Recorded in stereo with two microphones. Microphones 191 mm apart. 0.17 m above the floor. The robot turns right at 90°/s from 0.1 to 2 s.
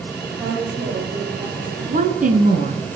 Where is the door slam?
No door slam in this recording.